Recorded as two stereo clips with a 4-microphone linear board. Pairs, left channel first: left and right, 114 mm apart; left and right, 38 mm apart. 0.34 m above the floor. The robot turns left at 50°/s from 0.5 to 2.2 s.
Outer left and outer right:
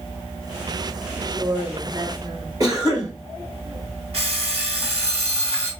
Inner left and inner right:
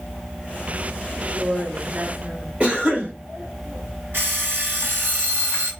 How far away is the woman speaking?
About 1.5 m.